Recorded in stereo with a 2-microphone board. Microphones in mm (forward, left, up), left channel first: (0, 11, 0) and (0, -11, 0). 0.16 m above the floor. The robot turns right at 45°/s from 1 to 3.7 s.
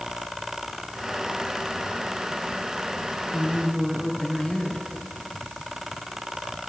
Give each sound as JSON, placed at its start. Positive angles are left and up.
{"t": 3.3, "sound": "a woman speaking", "side_deg": 50, "distance_m": 2.5}